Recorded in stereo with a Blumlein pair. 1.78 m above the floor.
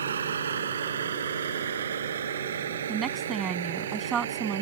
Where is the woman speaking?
20° right.